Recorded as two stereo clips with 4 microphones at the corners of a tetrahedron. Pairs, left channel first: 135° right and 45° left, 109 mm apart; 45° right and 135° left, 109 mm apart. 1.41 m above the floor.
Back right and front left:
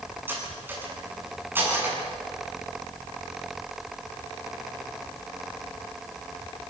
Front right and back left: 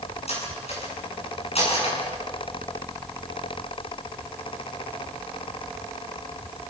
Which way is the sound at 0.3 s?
25° right.